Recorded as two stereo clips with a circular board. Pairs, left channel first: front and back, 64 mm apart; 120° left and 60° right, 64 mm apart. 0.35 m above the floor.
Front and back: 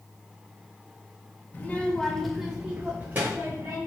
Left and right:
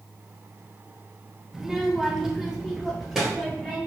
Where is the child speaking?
15° left, 0.7 m; by 3.8 s 145° right, 1.0 m.